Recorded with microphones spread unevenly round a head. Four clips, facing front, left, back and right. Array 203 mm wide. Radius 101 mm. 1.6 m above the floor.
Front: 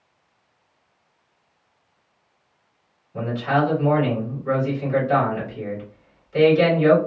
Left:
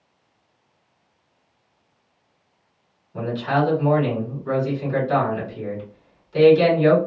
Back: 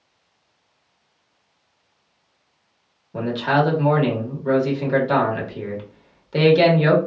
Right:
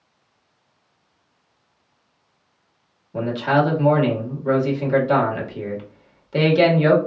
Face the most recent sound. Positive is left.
turn(degrees=-135)